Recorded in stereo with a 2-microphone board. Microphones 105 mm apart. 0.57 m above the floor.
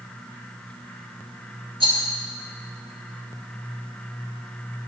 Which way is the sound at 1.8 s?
60° right (ahead or behind).